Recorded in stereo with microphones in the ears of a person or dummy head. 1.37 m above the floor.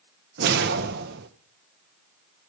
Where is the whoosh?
65° right (ahead or behind), 1.6 m.